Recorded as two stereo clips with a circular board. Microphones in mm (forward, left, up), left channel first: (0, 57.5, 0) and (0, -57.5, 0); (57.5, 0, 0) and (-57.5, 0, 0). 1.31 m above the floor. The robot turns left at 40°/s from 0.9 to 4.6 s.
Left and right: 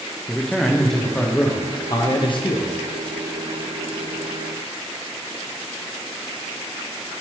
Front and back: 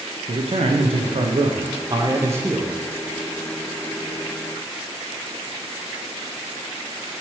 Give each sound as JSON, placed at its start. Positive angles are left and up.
{"t": 0.3, "sound": "a man speaking", "azimuth_deg": 175, "distance_m": 0.6}